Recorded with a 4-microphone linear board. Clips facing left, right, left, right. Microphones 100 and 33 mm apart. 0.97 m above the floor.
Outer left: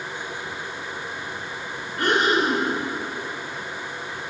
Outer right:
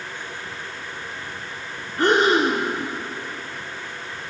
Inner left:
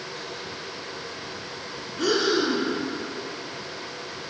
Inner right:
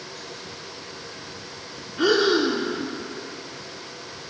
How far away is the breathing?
About 1.4 m.